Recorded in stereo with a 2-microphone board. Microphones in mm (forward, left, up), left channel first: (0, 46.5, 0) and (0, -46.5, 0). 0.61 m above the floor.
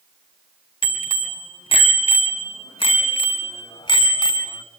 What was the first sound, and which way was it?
A bicycle bell, 70° left (ahead or behind).